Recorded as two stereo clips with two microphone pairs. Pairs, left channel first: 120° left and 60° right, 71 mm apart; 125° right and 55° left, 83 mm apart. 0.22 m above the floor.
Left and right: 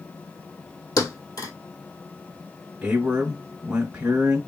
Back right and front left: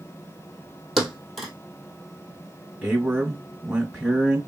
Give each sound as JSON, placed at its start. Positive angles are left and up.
{"t": 1.0, "sound": "a thud", "azimuth_deg": 145, "distance_m": 1.3}
{"t": 2.8, "sound": "a man speaking", "azimuth_deg": -5, "distance_m": 1.3}